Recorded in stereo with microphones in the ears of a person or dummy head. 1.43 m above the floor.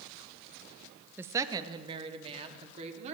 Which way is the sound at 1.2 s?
10° right (ahead or behind).